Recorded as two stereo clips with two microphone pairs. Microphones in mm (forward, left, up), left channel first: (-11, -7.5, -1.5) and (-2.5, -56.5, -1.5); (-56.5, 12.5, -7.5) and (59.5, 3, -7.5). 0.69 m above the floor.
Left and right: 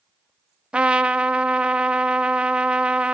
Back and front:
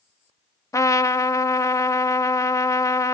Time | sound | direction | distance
0.7 | a trumpet | 135° right | 0.8 m